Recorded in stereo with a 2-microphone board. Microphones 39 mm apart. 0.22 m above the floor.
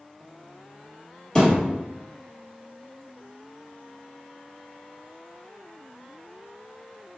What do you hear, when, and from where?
1.4 s a thud: 20° left (ahead or behind), 1.6 m